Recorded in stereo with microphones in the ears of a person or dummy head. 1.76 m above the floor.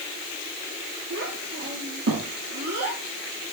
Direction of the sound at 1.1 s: 70° right (ahead or behind).